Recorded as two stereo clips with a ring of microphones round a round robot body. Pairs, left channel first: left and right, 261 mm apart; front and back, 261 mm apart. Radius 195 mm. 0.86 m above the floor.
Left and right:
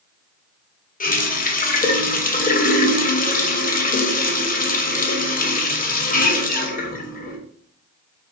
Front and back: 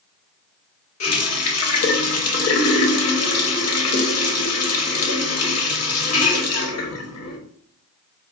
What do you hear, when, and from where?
1.0 s a running tap: 30° left, 0.9 m